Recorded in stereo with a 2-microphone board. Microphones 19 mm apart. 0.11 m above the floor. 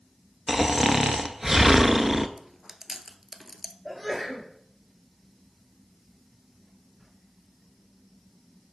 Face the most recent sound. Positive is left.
turn(degrees=-5)  # may be behind; listen again after turning